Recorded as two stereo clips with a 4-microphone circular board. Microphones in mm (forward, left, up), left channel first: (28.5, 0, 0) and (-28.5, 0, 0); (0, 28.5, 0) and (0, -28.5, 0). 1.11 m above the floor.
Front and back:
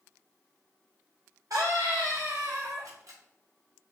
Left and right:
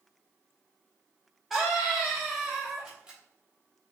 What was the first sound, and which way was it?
A scream, straight behind.